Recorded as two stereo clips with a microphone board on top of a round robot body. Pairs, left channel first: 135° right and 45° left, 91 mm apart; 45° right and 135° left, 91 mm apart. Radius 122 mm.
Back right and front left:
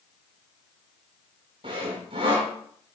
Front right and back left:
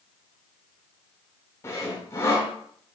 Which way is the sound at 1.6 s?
15° left.